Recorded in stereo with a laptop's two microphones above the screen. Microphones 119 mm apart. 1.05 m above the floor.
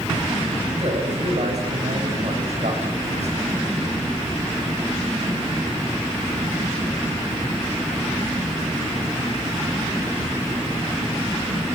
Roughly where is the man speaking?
Right.